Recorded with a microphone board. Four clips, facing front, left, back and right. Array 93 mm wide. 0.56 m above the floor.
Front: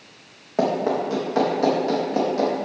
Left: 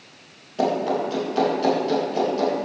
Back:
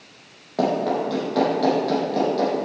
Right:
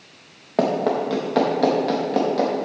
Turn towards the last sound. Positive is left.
turn(degrees=-75)